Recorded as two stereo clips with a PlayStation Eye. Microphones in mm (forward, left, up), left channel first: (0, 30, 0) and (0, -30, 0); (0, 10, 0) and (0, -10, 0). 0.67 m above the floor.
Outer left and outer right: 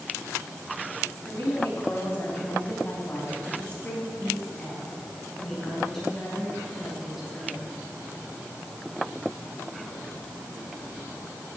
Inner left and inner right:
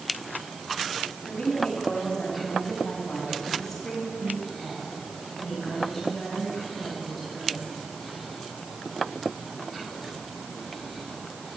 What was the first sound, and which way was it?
A woman speaking, 45° left (ahead or behind).